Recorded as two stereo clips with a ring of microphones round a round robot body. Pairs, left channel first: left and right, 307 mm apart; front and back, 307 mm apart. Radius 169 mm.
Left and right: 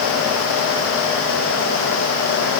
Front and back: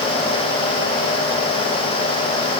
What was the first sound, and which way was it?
Only background noise.